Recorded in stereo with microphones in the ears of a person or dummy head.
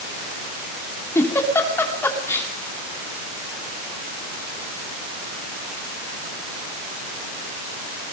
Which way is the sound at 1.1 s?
15° left (ahead or behind).